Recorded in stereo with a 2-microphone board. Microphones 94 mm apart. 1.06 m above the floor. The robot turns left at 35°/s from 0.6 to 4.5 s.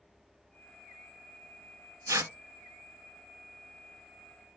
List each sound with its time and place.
2.1 s tearing paper: 35° right (ahead or behind), 0.8 m; by 2.3 s 25° right (ahead or behind), 0.8 m